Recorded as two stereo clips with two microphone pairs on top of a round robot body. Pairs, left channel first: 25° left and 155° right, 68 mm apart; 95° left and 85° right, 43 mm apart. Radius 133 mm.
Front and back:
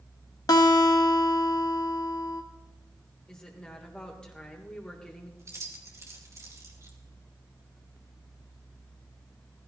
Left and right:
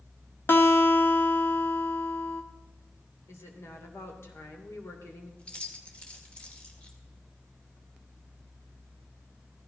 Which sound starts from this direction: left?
A woman speaking, at 3.3 s.